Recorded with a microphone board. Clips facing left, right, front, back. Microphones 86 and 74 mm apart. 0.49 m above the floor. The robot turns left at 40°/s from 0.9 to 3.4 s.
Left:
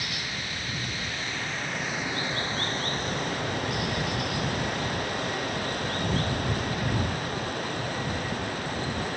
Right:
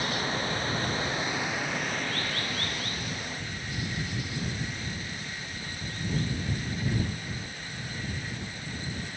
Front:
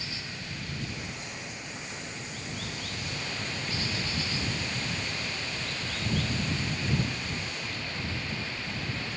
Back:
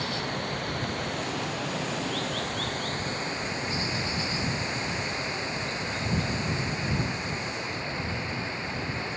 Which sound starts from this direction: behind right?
Running water, at 0.0 s.